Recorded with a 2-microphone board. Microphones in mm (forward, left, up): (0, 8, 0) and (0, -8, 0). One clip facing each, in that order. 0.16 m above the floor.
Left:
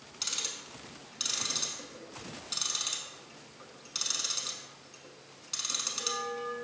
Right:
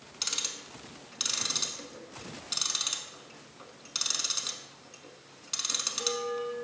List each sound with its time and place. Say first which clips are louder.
0.2 s ticking: right 2 dB; 15° right (ahead or behind), 0.5 m